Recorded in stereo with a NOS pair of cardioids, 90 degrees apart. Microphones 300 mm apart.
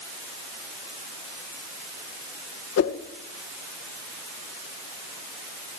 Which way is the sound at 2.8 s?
55° left.